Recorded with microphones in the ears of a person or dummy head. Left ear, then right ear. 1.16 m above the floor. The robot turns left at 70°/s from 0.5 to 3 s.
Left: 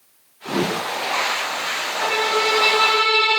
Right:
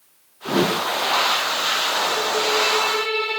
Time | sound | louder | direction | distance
0.5 | a whoosh | right 2 dB | 15° right (ahead or behind) | 0.5 m
2.0 | a violin | left 2 dB | 100° left | 1.4 m